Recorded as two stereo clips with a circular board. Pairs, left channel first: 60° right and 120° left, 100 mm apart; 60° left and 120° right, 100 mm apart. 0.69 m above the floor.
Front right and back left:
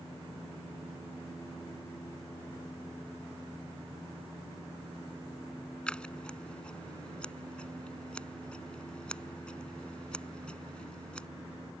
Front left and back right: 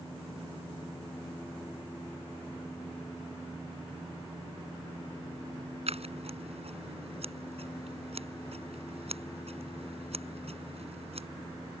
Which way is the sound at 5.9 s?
140° right.